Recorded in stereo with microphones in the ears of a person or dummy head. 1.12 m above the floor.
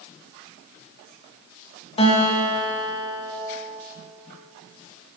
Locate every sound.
2.0 s a guitar: 30° left (ahead or behind), 1.4 m